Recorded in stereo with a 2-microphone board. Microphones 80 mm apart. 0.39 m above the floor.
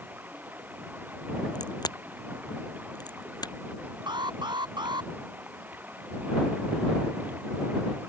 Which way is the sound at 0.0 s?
20° right (ahead or behind).